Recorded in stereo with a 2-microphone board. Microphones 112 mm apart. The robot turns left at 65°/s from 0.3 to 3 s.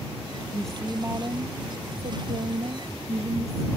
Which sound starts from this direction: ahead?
A woman speaking, at 0.5 s.